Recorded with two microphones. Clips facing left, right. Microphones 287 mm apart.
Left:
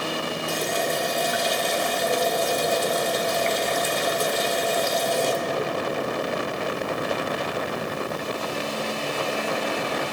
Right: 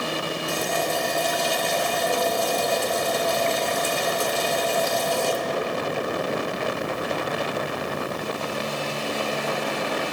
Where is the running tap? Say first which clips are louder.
Even; 20° left (ahead or behind), 2.5 m.